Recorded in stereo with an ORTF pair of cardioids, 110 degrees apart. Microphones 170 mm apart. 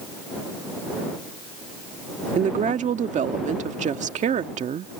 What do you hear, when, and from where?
2.4 s a woman speaking: 45° right